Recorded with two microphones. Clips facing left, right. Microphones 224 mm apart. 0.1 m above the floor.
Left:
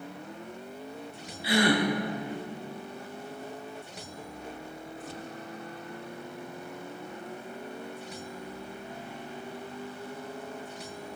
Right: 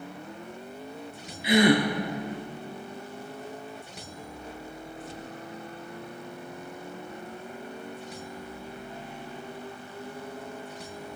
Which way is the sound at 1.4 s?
20° right (ahead or behind).